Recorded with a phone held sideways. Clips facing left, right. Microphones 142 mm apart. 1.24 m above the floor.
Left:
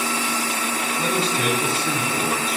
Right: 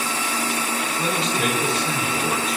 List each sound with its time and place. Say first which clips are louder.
1.0 s a man speaking: left 1 dB; 30° left (ahead or behind), 4 m